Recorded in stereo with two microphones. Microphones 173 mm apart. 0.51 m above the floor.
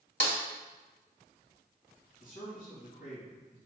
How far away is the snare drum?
About 1.5 m.